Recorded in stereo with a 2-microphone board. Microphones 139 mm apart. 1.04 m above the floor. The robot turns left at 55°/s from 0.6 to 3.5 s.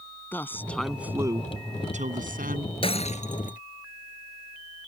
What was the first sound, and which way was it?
A woman speaking, 15° left.